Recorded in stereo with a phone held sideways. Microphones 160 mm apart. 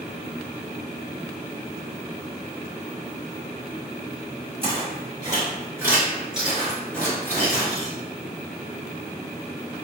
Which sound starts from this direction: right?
Footsteps, at 4.6 s.